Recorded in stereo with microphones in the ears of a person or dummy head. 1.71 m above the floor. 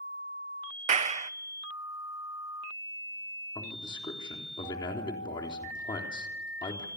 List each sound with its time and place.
0.9 s a clap: 40° right (ahead or behind), 0.8 m
3.5 s a man speaking: 20° left (ahead or behind), 3.5 m